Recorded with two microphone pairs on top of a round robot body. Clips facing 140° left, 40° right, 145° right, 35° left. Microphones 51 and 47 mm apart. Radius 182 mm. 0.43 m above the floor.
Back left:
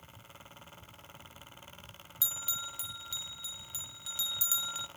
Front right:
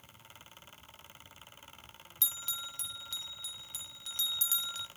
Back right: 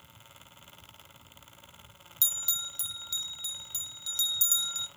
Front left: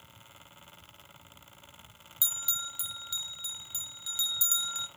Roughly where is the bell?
Left.